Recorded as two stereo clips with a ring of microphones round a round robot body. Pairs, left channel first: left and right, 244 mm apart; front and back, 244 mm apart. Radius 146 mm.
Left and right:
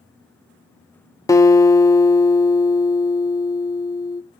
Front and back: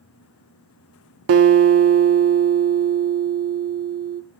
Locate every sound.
1.3 s a guitar: 165° left, 1.1 m